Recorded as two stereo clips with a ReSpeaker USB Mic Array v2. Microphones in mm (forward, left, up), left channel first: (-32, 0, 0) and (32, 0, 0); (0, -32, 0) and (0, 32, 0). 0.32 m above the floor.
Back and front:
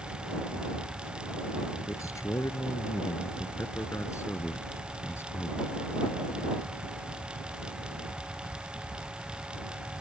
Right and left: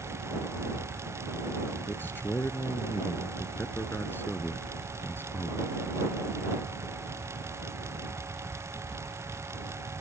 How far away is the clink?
No clink in this recording.